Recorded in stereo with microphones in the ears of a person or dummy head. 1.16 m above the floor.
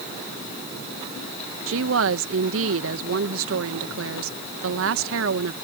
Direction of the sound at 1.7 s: 65° right (ahead or behind).